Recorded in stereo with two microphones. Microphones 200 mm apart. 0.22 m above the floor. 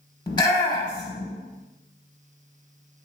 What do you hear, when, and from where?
0.3 s a shout: 20° left (ahead or behind), 1.1 m